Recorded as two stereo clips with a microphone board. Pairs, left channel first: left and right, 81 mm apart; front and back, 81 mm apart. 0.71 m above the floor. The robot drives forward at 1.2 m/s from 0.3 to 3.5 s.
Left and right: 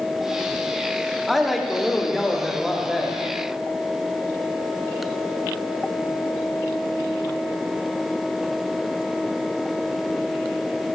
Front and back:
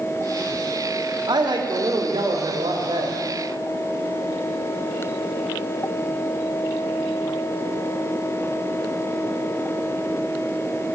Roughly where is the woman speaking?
Behind.